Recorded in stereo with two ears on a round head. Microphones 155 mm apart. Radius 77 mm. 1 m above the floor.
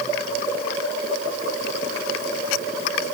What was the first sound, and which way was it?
Only background noise.